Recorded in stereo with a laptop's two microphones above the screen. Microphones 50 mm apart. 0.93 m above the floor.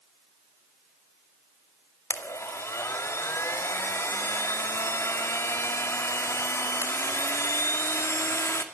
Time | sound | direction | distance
2.1 | a blender | 65° left (ahead or behind) | 2.5 m